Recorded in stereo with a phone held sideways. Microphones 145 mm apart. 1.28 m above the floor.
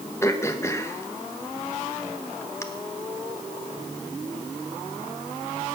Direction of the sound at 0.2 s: 20° left (ahead or behind).